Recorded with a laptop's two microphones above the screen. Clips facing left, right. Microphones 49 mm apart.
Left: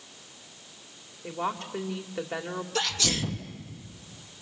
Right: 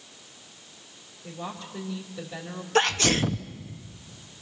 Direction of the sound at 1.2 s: 55° left (ahead or behind).